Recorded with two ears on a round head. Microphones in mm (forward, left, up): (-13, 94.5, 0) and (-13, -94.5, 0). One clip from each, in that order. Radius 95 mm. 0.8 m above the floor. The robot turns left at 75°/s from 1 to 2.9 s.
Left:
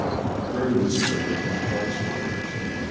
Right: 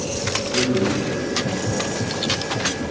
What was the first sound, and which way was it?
A man speaking, 130° left.